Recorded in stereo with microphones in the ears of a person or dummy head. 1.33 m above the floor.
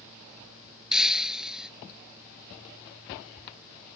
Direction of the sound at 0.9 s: 5° right (ahead or behind).